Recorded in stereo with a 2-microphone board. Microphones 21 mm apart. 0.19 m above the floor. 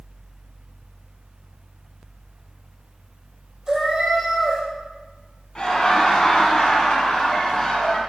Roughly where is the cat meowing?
Right.